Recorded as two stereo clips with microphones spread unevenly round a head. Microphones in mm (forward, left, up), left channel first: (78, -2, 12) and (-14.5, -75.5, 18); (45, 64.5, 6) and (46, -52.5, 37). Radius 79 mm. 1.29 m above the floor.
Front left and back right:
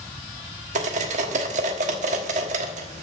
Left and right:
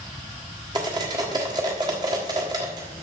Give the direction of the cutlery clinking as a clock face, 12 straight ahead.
5 o'clock.